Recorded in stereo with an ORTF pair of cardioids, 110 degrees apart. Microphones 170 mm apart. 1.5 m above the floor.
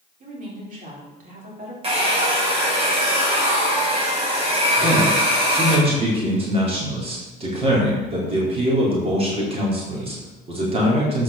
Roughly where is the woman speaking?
Ahead right.